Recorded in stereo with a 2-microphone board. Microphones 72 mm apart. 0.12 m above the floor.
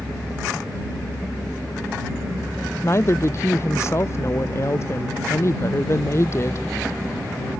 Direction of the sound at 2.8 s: 40° left (ahead or behind).